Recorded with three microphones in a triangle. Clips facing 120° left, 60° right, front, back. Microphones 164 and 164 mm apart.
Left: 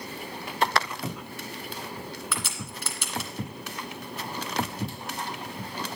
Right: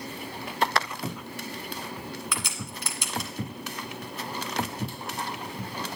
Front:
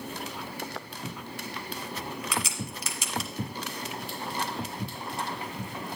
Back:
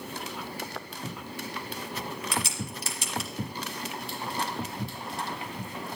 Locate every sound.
2.3 s a crack: 130° right, 1.8 m